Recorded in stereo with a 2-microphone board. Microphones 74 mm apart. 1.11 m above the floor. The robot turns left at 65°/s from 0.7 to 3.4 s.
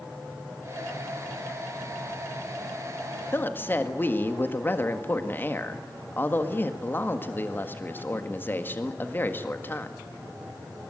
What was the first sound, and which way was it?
A woman speaking, 35° left (ahead or behind).